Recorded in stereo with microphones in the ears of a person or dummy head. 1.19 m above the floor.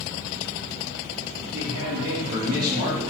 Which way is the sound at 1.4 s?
50° right (ahead or behind).